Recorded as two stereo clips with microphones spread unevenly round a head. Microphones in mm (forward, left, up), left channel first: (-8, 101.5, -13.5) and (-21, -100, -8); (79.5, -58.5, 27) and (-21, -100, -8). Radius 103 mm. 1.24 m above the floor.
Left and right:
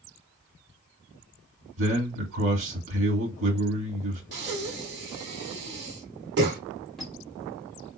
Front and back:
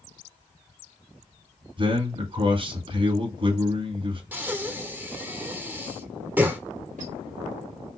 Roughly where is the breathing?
Right.